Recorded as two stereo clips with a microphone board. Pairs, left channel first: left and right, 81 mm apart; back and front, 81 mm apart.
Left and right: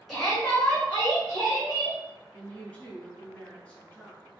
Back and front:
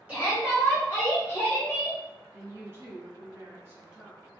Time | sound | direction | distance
0.1 | a shout | 5° right | 1.7 m
2.3 | a woman speaking | 25° left | 1.7 m